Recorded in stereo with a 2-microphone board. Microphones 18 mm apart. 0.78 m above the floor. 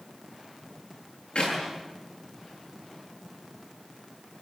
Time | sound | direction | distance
1.4 | a clap | 60° left (ahead or behind) | 9.5 m